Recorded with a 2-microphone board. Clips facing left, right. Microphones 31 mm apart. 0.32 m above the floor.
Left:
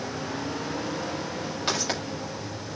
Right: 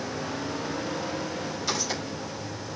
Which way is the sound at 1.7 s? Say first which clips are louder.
Left 3 dB; 50° left (ahead or behind).